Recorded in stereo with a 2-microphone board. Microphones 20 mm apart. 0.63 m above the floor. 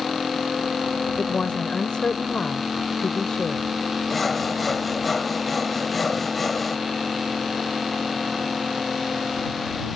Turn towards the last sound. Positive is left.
turn(degrees=5)  # may be behind; listen again after turning